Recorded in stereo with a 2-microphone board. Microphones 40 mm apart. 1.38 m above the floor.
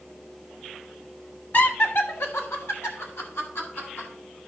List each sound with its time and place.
1.5 s laughter: 45° left (ahead or behind), 1.3 m; by 4.1 s 70° left (ahead or behind), 3 m